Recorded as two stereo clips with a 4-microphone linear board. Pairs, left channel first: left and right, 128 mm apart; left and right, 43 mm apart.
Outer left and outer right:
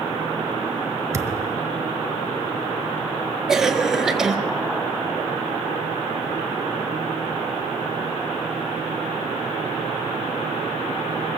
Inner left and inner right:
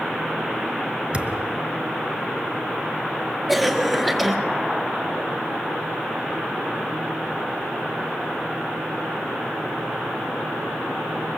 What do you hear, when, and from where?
1.1 s a thud: 25° right (ahead or behind), 1.0 m
3.5 s a cough: 5° right (ahead or behind), 1.8 m